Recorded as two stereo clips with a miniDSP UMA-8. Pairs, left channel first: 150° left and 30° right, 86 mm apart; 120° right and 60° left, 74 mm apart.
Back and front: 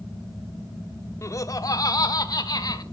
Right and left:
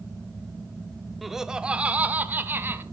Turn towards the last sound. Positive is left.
turn(degrees=115)